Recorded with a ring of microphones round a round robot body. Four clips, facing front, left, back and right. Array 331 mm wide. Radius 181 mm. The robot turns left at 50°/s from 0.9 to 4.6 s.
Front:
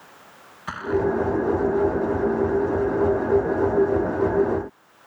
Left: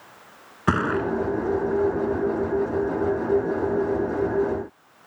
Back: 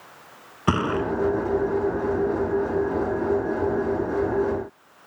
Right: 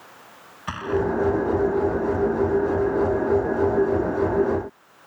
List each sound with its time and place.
0.7 s a gunshot: 135° left; by 1.1 s 125° left